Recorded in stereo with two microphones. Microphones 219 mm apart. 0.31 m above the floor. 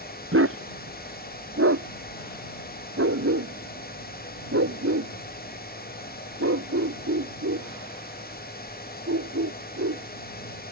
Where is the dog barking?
75° right (ahead or behind); by 10.7 s 90° right.